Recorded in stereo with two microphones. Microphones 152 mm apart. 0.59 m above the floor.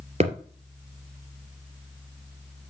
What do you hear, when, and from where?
0.2 s a thud: 45° right (ahead or behind), 2.5 m